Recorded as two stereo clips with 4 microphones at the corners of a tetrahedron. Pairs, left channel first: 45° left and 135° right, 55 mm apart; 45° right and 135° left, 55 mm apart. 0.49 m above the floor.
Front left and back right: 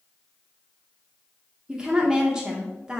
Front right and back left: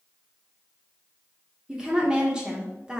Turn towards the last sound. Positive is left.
turn(degrees=175)